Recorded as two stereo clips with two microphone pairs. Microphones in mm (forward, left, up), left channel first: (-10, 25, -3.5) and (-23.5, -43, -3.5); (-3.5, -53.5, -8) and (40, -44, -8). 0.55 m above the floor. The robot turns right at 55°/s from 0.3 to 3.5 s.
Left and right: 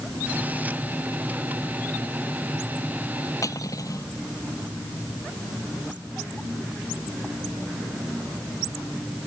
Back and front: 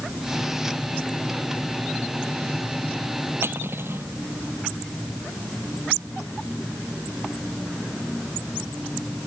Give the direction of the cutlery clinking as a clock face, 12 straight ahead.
11 o'clock.